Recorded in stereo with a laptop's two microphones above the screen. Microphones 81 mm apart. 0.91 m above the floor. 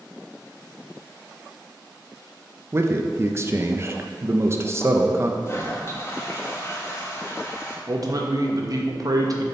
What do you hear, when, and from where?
2.7 s a man speaking: 35° right (ahead or behind), 0.6 m
5.5 s a toilet flushing: 30° left (ahead or behind), 1.2 m
7.9 s a man speaking: 50° right (ahead or behind), 0.8 m